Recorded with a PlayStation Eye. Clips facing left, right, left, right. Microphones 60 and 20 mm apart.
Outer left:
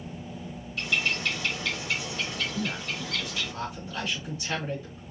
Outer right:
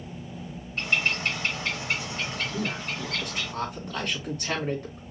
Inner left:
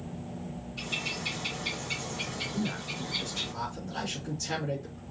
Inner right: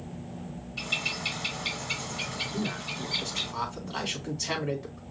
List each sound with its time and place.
0.8 s a bird: 40° right (ahead or behind), 2 m
2.5 s a man speaking: 60° right (ahead or behind), 3 m